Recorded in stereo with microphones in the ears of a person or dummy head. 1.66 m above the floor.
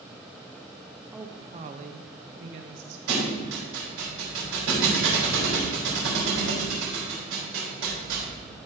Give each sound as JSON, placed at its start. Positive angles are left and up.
{"t": 1.1, "sound": "a woman speaking", "side_deg": -5, "distance_m": 0.5}
{"t": 3.1, "sound": "a thud", "side_deg": -75, "distance_m": 3.5}